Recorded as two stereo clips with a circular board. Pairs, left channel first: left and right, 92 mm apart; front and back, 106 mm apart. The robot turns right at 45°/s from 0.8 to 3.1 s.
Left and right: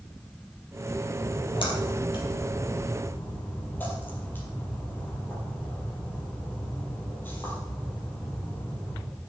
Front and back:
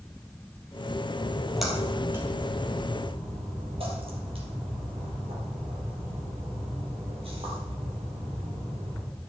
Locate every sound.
1.2 s a splash: 70° left, 4 m; by 9.0 s 160° left, 4 m